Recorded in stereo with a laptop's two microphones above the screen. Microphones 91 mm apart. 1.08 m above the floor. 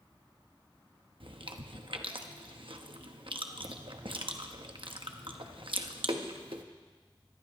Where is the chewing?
65° right (ahead or behind), 1.0 m.